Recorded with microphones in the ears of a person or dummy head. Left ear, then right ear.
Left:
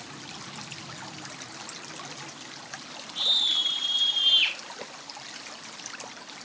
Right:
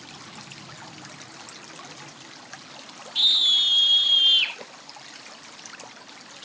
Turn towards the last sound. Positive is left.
turn(degrees=5)  # may be behind; listen again after turning